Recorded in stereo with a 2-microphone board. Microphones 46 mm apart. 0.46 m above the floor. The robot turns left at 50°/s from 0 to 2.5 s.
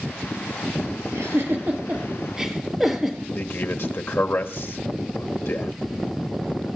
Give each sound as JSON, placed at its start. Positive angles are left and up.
{"t": 1.1, "sound": "a giggle", "side_deg": -70, "distance_m": 4.5}
{"t": 3.4, "sound": "a man speaking", "side_deg": 55, "distance_m": 2.0}